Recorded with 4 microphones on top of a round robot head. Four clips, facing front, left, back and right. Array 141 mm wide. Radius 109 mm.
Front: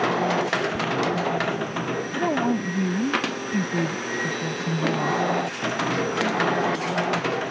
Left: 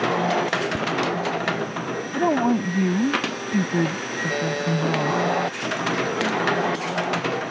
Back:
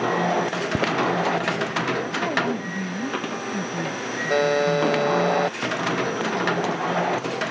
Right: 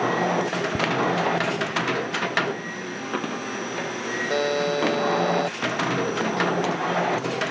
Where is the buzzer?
170° right.